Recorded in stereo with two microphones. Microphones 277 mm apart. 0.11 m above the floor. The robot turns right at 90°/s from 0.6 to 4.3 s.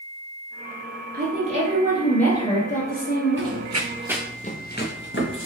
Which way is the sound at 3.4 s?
45° right (ahead or behind).